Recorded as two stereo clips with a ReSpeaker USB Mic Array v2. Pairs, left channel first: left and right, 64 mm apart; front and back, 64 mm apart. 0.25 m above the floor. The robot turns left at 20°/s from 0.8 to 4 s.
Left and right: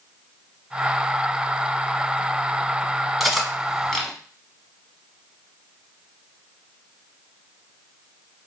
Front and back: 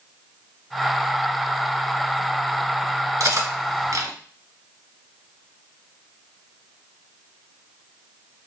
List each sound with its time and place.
3.2 s cutlery clinking: straight behind, 0.9 m; by 4.1 s 165° left, 0.9 m